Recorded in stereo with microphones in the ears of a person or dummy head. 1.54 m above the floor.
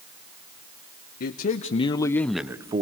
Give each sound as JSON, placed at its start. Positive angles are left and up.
{"t": 1.2, "sound": "a man speaking", "side_deg": 55, "distance_m": 1.0}